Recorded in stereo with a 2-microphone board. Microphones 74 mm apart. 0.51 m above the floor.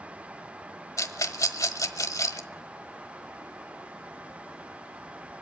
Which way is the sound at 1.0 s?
55° left (ahead or behind).